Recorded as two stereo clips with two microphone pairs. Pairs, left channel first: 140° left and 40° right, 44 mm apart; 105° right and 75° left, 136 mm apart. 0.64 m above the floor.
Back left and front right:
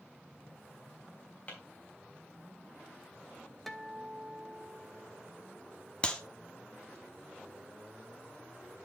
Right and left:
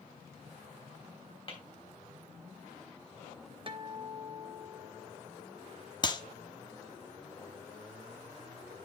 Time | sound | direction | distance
1.5 | tapping | 160° right | 3 m
3.7 | a guitar | 55° left | 0.8 m
6.0 | a clap | 160° right | 0.8 m